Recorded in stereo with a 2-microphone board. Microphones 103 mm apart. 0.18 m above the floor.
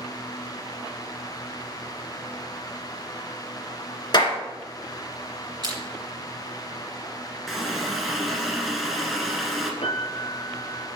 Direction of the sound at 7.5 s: Centre (ahead or behind).